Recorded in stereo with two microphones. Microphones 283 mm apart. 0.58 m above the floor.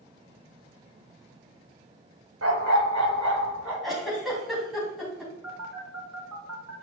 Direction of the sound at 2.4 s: 55° right (ahead or behind).